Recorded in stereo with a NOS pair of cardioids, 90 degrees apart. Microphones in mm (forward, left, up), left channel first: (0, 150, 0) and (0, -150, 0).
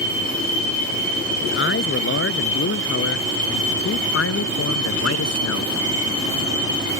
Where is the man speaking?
45° left; by 5.7 s 60° left.